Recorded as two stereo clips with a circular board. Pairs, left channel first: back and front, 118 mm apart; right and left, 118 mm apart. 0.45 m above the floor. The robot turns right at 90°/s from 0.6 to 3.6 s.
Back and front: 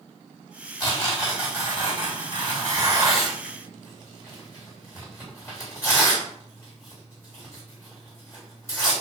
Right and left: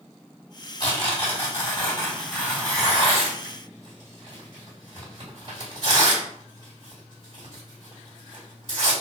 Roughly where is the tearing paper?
Behind right.